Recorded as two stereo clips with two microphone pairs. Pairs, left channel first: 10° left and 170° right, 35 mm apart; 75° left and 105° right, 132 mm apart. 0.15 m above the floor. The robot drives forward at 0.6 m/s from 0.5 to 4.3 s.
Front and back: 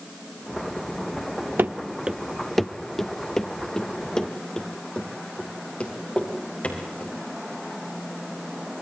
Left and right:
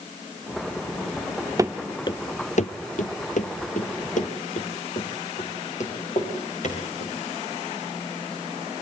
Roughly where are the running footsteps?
Behind.